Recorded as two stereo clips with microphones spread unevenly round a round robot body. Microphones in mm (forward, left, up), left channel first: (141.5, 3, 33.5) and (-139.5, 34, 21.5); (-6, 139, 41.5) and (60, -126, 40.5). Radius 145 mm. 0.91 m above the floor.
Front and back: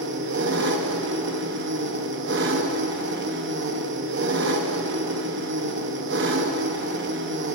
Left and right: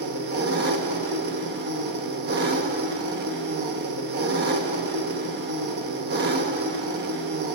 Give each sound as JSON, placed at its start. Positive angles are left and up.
{"t": 0.0, "sound": "an engine running", "azimuth_deg": -130, "distance_m": 0.7}